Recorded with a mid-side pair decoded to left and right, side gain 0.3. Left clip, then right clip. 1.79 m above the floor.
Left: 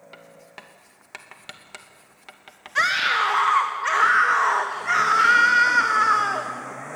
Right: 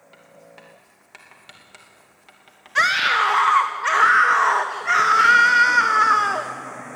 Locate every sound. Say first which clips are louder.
0.1 s writing: left 1 dB; 65° left, 2.5 m
2.8 s a scream: right 3 dB; 30° right, 1.5 m